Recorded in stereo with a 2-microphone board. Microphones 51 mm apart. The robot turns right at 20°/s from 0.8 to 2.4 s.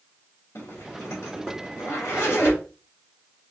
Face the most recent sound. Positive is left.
turn(degrees=55)  # may be behind; listen again after turning